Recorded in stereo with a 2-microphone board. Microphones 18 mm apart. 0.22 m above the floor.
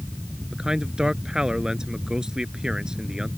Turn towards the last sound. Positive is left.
turn(degrees=-45)  # may be behind; listen again after turning